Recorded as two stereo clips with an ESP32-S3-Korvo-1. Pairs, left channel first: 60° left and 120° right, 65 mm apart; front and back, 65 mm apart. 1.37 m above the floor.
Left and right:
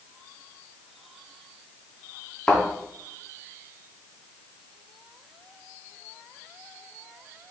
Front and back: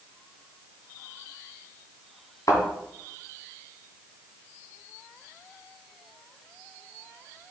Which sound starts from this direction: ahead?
A thud, at 2.5 s.